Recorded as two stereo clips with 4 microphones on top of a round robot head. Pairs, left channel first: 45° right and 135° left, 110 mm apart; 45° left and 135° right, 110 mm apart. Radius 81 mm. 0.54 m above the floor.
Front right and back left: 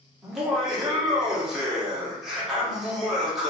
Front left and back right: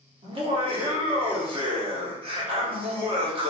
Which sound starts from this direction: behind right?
Laughter, at 0.2 s.